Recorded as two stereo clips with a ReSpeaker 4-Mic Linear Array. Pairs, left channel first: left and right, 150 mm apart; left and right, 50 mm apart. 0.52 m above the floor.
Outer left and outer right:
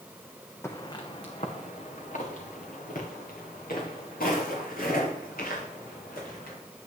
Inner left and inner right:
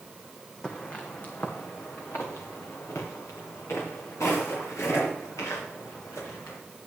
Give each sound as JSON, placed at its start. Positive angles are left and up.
{"t": 0.6, "sound": "footsteps", "side_deg": 20, "distance_m": 1.4}